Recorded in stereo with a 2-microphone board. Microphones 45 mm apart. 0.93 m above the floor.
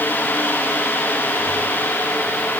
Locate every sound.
Only background noise.